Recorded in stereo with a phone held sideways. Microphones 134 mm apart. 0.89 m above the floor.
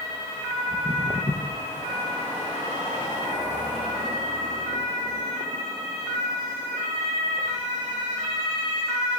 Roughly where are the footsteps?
Left.